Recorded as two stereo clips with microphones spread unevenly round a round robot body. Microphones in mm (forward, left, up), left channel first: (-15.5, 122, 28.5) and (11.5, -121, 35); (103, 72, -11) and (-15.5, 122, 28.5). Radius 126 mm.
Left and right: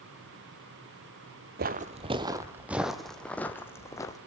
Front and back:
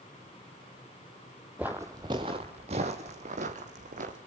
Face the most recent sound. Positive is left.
turn(degrees=175)